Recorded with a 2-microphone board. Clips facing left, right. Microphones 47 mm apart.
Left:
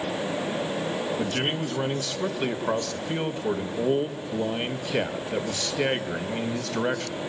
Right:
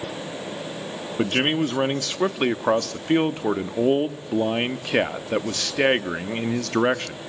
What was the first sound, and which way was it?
A man speaking, 70° right (ahead or behind).